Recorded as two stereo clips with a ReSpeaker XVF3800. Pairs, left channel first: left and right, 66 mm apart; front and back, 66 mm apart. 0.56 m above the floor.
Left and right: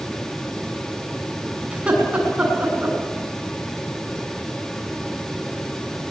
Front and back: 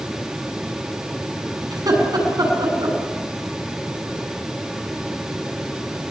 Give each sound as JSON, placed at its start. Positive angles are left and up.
{"t": 1.7, "sound": "laughter", "azimuth_deg": -160, "distance_m": 7.0}